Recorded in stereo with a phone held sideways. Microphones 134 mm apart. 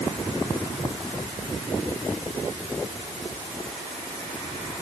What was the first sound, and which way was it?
Only background noise.